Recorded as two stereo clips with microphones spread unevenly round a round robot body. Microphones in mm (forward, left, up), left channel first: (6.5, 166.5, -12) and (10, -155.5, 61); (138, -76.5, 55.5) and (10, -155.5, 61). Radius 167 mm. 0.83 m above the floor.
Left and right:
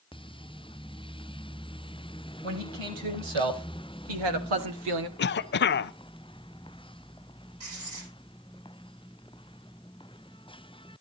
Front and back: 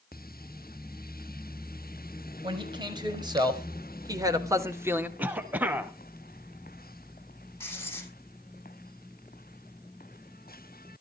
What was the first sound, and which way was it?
A man speaking, 90° right.